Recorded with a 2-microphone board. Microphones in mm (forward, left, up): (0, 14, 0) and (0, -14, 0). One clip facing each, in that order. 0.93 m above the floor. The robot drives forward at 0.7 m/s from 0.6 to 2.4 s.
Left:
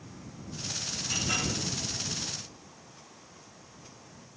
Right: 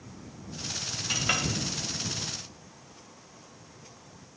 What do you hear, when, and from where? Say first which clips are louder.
1.1 s a clink: right 3 dB; 45° right (ahead or behind), 0.6 m; by 1.4 s 60° right (ahead or behind), 0.5 m